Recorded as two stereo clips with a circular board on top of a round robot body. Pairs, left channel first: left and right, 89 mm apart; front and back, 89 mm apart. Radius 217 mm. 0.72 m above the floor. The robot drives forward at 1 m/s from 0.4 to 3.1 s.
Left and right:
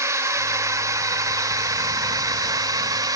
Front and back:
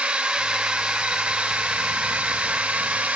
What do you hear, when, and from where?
0.0 s a drone: 110° right